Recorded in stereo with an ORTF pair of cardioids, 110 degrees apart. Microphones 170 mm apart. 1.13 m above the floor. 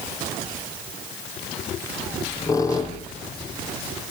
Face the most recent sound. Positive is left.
turn(degrees=20)